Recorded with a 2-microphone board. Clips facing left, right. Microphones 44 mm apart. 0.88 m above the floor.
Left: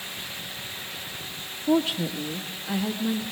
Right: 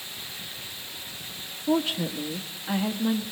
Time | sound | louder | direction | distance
1.7 | a woman speaking | left 2 dB | 5° right (ahead or behind) | 1.3 m